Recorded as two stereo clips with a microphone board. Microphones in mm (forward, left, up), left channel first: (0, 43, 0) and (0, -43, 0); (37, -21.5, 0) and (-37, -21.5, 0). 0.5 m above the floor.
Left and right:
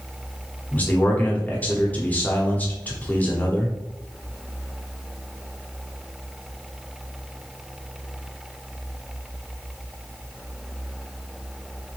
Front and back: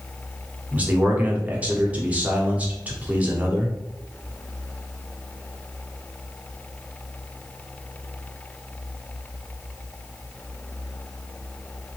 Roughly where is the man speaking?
Behind left.